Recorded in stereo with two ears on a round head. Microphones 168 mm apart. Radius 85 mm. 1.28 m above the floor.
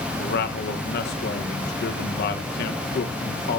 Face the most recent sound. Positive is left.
turn(degrees=60)  # may be behind; listen again after turning